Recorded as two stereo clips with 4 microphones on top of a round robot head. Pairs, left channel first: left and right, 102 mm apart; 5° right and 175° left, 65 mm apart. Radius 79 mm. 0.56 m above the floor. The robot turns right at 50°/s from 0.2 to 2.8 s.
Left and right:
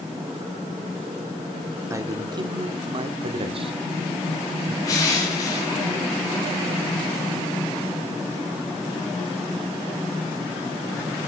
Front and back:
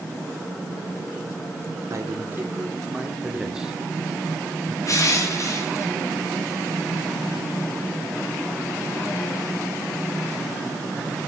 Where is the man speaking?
150° right, 1.2 m; by 4.8 s 105° right, 1.2 m.